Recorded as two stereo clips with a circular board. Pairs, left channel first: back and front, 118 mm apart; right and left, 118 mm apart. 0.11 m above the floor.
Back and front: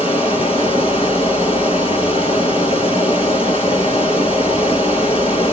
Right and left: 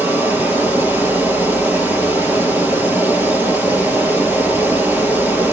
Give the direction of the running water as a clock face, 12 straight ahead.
7 o'clock.